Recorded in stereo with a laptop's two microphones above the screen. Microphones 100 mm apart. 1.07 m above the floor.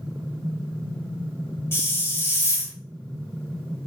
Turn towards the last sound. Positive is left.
turn(degrees=25)  # may be behind; listen again after turning